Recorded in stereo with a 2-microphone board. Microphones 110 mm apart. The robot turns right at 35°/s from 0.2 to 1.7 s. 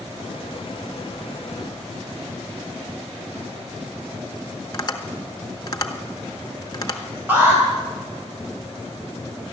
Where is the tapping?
35° left (ahead or behind), 1.2 m.